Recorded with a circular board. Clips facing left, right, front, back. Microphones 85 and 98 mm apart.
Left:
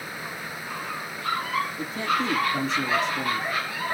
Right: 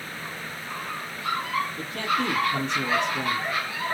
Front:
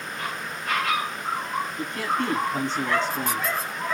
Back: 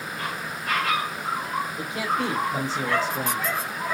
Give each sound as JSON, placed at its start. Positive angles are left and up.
{"t": 1.8, "sound": "a man speaking", "azimuth_deg": -100, "distance_m": 5.0}